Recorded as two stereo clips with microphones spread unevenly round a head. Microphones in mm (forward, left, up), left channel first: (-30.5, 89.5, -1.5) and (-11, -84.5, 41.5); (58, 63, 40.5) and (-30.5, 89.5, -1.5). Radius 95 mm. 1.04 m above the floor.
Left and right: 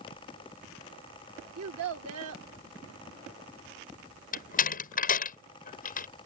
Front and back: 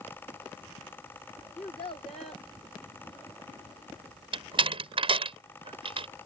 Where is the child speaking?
75° right.